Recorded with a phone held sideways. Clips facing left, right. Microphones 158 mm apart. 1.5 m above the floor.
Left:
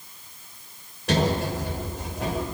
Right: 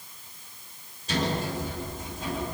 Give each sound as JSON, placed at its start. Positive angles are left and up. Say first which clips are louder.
{"t": 1.1, "sound": "a sliding door", "louder": "left 5 dB", "side_deg": 80, "distance_m": 5.5}